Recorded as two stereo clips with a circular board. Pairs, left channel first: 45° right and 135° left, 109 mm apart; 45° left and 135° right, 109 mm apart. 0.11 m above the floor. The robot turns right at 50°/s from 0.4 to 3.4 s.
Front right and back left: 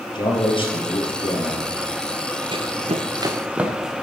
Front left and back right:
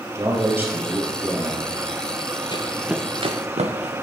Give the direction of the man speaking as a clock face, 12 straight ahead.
3 o'clock.